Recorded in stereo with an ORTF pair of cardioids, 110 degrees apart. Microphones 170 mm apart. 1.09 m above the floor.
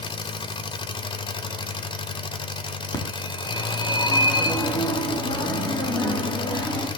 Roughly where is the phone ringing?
Ahead left.